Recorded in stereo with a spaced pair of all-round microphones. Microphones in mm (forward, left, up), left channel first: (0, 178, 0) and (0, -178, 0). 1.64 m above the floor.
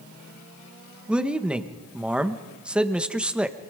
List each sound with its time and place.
1.1 s a man speaking: 5° right (ahead or behind), 1.6 m